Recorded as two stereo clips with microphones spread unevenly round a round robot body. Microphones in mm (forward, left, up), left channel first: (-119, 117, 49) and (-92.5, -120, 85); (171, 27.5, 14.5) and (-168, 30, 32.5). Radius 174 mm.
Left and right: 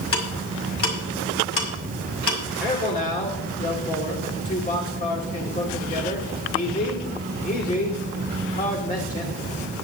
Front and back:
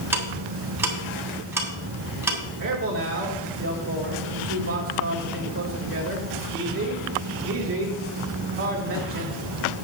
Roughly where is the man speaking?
Behind left.